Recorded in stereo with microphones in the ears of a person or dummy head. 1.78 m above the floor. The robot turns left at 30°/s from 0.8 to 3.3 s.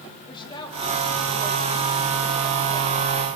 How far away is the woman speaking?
About 2.5 m.